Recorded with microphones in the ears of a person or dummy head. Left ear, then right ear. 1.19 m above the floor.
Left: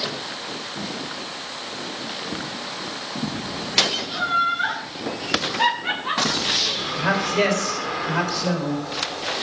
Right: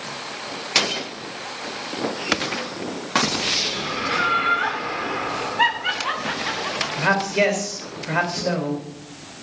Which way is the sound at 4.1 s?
60° right (ahead or behind).